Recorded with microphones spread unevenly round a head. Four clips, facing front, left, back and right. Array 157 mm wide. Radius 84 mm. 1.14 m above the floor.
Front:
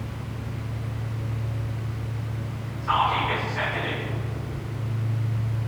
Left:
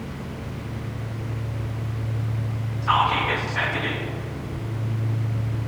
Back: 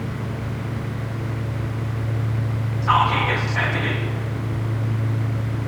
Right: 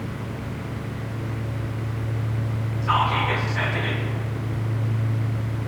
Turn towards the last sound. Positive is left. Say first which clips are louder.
# left 1 dB, back 4 dB
turn(degrees=165)